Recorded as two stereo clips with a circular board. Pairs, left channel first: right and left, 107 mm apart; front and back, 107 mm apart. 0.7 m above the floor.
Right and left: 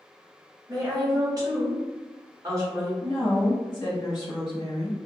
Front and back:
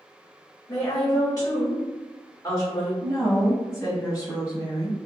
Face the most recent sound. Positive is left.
turn(degrees=-45)